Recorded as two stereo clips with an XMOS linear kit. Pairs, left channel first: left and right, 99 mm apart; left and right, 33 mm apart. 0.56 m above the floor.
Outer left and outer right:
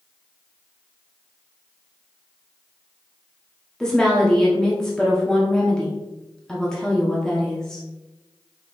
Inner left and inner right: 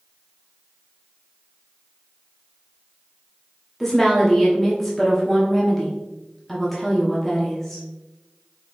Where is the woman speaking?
5° left (ahead or behind), 0.8 m.